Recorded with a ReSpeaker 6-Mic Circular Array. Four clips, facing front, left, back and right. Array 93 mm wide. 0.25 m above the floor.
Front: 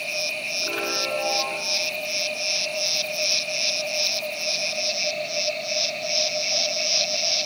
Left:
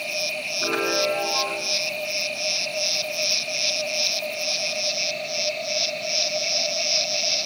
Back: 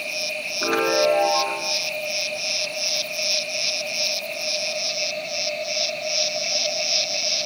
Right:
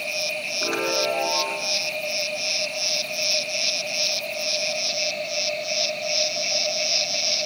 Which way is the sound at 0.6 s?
170° right.